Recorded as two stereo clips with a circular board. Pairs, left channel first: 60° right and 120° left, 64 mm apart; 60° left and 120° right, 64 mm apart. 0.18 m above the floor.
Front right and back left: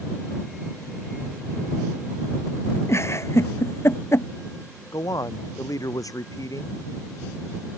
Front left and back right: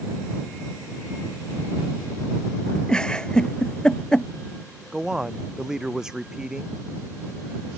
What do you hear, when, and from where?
2.9 s a giggle: 15° right
4.9 s a man speaking: 40° right